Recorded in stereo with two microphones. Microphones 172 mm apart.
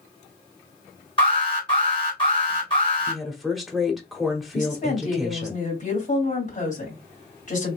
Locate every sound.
1.2 s an alarm: 30° left (ahead or behind), 2.5 m
3.1 s a woman speaking: centre (ahead or behind), 1.1 m
4.5 s a woman speaking: 45° left (ahead or behind), 2.5 m